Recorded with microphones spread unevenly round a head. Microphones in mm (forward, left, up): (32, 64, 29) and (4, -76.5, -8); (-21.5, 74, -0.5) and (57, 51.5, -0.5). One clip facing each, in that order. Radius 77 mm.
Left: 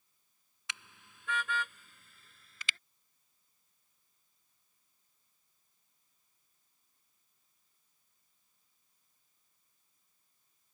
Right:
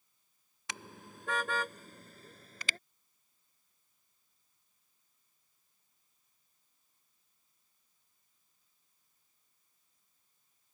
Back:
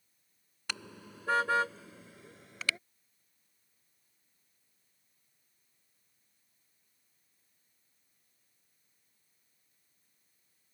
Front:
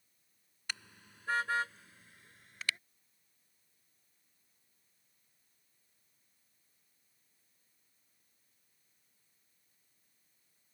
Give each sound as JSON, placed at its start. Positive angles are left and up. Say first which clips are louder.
{"t": 0.7, "sound": "a car horn", "louder": "right 6 dB, back 4 dB", "azimuth_deg": -160}